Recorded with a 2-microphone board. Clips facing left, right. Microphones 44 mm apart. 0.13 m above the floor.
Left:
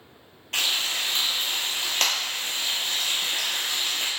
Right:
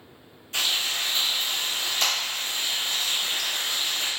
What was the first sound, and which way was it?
Frying, 60° left (ahead or behind).